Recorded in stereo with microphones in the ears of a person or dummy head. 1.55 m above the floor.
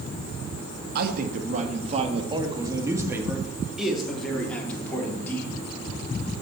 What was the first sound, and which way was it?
A man speaking, 55° right (ahead or behind).